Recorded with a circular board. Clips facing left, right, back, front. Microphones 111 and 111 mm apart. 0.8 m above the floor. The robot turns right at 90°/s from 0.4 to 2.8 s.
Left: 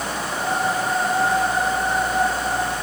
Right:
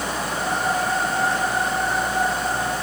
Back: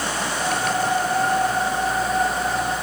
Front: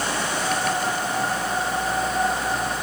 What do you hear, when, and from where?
Only background noise.